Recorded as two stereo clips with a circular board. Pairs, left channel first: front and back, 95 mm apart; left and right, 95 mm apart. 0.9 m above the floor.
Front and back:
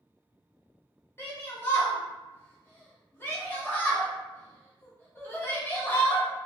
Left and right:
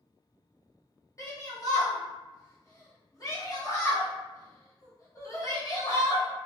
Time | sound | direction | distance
1.2 | a shout | 55° left | 0.9 m